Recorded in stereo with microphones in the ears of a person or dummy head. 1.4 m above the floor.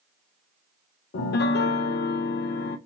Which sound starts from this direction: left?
A piano, at 1.1 s.